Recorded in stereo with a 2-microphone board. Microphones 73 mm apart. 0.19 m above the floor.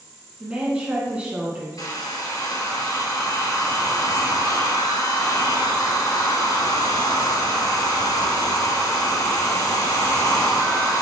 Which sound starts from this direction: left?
A hair dryer, at 1.8 s.